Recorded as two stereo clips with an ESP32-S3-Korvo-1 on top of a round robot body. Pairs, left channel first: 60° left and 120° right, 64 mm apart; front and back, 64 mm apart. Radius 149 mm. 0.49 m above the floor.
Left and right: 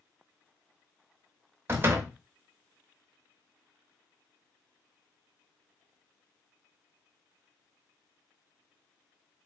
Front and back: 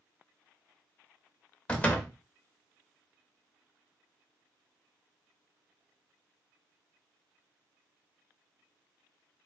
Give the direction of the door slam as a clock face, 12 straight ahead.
2 o'clock.